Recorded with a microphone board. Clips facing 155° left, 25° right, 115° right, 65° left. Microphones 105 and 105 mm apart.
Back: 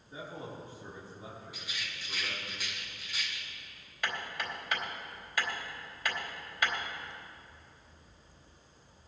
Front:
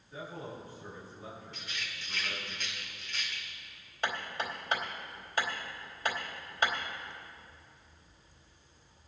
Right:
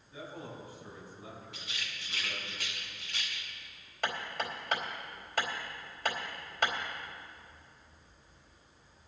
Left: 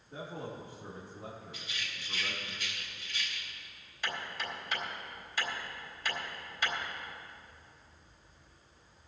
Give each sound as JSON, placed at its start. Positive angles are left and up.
{"t": 0.1, "sound": "a man speaking", "azimuth_deg": 95, "distance_m": 4.0}
{"t": 1.5, "sound": "a rattle", "azimuth_deg": -120, "distance_m": 2.5}
{"t": 4.0, "sound": "hammering", "azimuth_deg": -80, "distance_m": 4.0}